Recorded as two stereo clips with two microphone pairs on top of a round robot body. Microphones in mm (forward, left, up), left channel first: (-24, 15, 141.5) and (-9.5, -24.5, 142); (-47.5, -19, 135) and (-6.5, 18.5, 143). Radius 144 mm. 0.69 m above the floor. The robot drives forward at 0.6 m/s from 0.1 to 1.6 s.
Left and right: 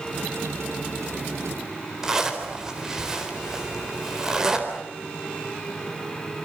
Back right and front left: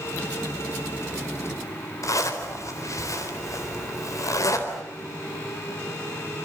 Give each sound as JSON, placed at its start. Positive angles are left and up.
{"t": 2.0, "sound": "a zipper", "azimuth_deg": -150, "distance_m": 4.0}